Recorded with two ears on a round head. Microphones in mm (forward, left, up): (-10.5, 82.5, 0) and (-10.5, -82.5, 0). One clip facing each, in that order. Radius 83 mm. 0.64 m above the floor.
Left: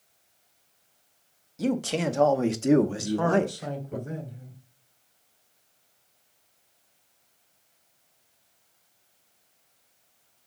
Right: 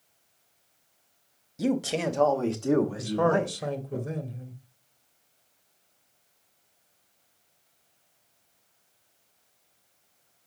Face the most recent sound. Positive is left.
turn(degrees=-40)  # may be behind; listen again after turning